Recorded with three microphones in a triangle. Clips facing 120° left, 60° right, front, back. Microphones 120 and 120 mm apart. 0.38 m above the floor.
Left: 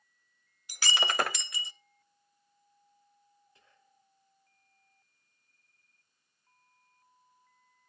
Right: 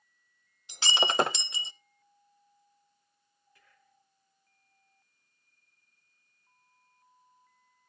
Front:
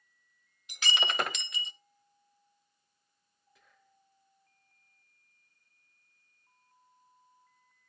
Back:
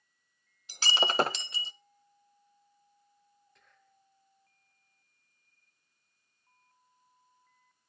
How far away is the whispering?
About 1.1 m.